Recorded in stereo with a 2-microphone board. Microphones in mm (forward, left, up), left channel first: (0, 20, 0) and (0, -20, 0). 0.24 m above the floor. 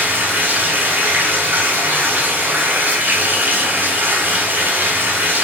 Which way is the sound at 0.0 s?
55° right (ahead or behind).